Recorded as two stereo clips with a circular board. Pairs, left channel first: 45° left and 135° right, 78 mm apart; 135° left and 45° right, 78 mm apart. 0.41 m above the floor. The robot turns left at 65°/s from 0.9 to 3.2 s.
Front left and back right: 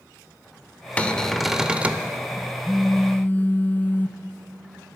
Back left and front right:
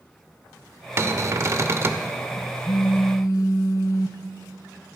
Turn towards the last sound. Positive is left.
turn(degrees=105)